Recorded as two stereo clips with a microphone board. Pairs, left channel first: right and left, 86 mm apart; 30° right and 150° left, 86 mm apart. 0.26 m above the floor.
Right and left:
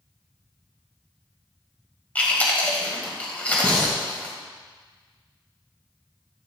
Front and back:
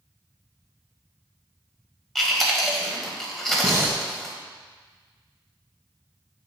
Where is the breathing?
165° right, 1.8 m.